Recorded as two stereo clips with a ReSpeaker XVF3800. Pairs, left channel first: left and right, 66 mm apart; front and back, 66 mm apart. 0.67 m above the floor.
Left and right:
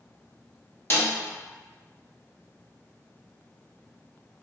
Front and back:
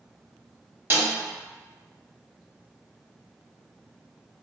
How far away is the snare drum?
About 0.9 m.